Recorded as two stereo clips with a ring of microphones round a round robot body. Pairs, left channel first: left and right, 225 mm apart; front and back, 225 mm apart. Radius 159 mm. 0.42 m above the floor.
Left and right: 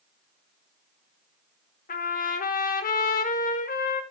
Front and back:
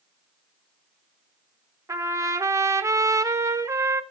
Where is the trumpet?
110° left, 0.5 m.